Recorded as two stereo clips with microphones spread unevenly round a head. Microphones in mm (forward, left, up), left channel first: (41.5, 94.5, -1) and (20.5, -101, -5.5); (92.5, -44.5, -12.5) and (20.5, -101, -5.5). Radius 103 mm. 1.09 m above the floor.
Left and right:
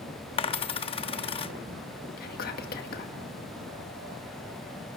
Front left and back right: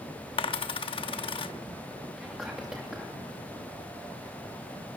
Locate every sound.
0.4 s a dropped coin: 25° left, 0.8 m
2.2 s whispering: 135° left, 2.0 m